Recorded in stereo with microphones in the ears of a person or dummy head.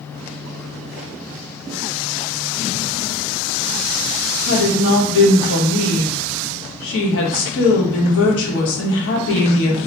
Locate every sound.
4.5 s a woman speaking: 75° left (ahead or behind), 0.9 m